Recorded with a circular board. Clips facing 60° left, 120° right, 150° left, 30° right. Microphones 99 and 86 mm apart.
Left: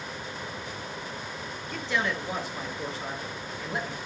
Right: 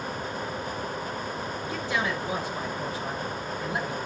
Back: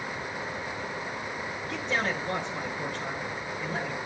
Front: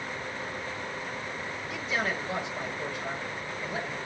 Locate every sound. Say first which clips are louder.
1.7 s a man speaking: even, back 1 dB; 160° left, 7 m